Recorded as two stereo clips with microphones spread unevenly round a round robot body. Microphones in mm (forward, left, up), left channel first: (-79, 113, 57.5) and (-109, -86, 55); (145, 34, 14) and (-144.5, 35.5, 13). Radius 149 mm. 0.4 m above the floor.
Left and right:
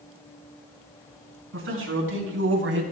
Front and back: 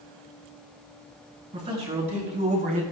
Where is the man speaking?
110° right, 5.5 m; by 2.8 s 115° right, 3.5 m.